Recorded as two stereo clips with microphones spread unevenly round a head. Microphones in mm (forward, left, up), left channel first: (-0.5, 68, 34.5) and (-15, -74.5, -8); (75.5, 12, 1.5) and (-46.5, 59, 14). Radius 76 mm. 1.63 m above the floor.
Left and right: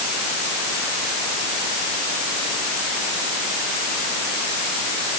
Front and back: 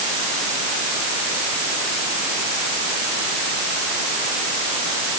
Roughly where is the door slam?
No door slam in this recording.